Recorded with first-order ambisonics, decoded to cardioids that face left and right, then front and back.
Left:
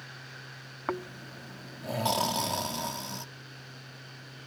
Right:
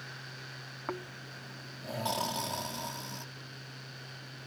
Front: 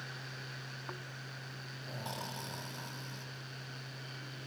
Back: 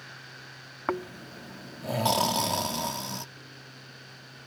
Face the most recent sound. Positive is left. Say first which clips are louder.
# left 6 dB, back 12 dB
turn(degrees=160)